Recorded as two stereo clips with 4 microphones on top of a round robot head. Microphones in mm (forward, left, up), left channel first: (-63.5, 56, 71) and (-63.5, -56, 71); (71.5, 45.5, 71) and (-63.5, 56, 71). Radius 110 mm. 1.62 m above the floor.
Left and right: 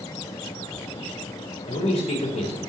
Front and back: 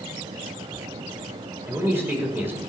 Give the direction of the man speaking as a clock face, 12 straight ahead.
9 o'clock.